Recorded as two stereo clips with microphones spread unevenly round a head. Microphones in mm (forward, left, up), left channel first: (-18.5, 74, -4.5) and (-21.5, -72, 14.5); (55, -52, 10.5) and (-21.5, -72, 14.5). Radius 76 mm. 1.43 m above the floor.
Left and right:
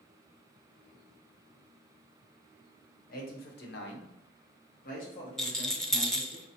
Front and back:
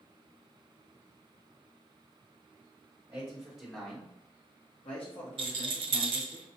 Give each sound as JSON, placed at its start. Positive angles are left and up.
{"t": 3.1, "sound": "a man speaking", "azimuth_deg": 120, "distance_m": 1.1}
{"t": 5.4, "sound": "a rattle", "azimuth_deg": 180, "distance_m": 0.6}